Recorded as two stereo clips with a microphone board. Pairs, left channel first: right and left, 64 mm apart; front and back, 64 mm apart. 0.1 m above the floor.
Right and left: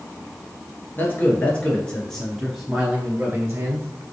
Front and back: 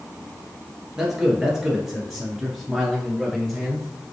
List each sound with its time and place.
1.0 s a man speaking: 100° right, 1.7 m; by 3.9 s 105° left, 1.6 m